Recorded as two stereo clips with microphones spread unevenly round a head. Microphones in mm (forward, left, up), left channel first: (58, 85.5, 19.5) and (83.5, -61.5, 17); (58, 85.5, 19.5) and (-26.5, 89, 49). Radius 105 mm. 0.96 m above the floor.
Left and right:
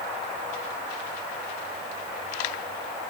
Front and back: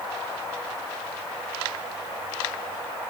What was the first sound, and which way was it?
Only background noise.